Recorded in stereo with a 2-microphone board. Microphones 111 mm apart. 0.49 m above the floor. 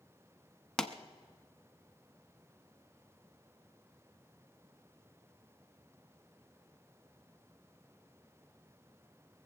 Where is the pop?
5° left (ahead or behind), 0.8 m.